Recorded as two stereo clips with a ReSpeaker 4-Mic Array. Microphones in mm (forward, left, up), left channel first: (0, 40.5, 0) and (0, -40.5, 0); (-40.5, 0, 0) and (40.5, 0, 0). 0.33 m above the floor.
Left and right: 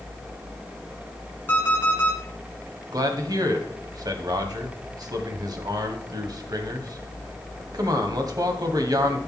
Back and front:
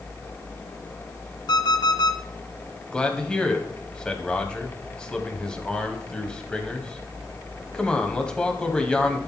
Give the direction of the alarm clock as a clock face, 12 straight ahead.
7 o'clock.